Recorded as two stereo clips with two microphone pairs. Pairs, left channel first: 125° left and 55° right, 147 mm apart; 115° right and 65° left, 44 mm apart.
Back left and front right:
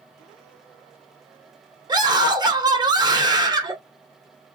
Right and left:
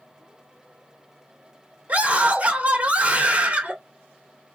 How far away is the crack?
No crack in this recording.